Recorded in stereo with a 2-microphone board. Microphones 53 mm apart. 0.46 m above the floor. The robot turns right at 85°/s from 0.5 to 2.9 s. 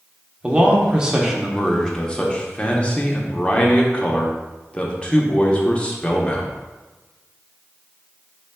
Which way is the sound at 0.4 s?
20° right (ahead or behind).